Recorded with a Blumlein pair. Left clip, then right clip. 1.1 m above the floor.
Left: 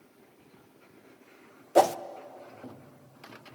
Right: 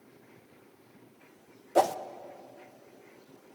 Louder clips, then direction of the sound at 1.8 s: Left 3 dB; 10° left.